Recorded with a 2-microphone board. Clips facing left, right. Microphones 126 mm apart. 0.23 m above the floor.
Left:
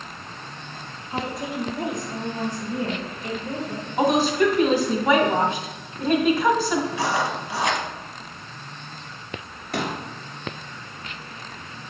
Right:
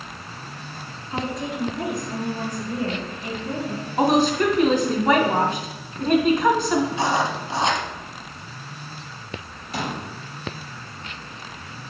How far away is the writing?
About 1.0 m.